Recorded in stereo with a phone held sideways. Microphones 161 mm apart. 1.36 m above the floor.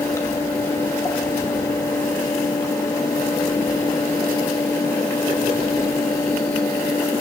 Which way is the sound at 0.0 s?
15° left (ahead or behind).